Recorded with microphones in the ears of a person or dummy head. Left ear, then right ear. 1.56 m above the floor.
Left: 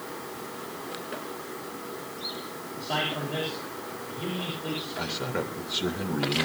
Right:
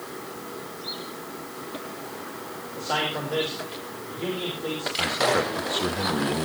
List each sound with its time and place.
2.8 s a man speaking: 55° right (ahead or behind), 6.5 m
5.0 s a man speaking: 30° right (ahead or behind), 2.5 m